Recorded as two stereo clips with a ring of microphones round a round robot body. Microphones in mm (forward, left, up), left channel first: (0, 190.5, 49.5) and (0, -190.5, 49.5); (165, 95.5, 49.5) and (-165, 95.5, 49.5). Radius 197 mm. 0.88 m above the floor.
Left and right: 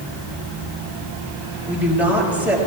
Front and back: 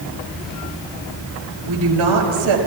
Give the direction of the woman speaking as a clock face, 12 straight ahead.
6 o'clock.